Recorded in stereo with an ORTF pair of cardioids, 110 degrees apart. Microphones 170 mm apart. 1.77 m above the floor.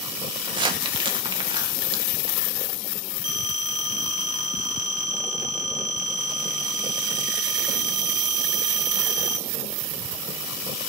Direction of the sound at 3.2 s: 60° right.